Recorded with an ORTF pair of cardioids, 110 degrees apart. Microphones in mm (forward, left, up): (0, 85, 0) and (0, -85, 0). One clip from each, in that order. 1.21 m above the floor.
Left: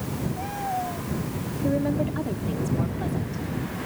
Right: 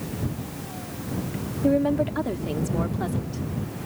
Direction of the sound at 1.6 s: 40° right.